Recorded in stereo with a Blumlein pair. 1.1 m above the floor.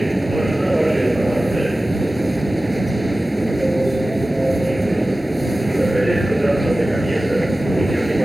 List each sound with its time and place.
0.0 s a machine running: straight ahead